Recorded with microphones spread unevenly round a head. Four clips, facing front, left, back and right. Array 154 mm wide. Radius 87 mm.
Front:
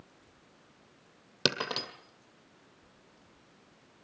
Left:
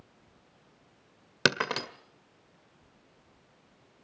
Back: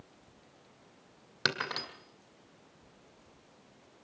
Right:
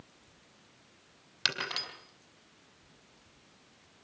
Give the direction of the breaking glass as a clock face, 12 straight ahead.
10 o'clock.